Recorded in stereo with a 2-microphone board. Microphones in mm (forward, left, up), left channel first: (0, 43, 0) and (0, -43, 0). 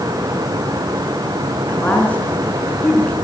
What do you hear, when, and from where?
1.7 s a woman speaking: 20° left (ahead or behind), 4 m